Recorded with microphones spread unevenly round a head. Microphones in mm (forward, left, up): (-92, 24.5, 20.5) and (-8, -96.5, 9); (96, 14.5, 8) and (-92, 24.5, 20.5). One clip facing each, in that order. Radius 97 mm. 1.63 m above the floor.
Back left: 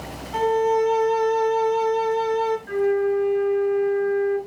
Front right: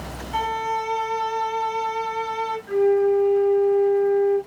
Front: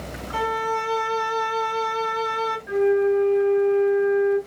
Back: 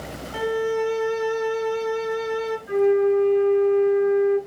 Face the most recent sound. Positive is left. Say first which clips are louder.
# front right 5 dB, back 1 dB
turn(degrees=60)